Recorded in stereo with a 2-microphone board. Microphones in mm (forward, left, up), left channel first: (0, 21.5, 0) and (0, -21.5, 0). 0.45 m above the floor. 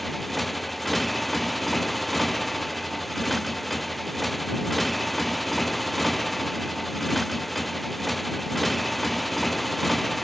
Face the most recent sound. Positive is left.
turn(degrees=0)  # may be behind; listen again after turning